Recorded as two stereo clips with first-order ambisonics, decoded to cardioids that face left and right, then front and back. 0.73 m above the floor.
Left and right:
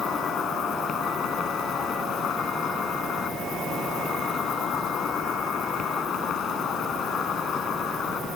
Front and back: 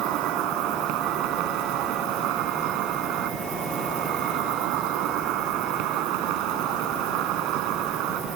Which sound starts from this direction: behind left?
An insect, at 0.0 s.